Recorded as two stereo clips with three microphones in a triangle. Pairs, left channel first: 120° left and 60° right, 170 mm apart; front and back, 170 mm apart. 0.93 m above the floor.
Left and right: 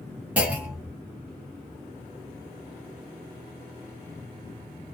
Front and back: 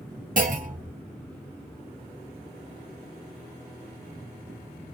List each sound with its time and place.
0.4 s a clunk: 140° right, 0.9 m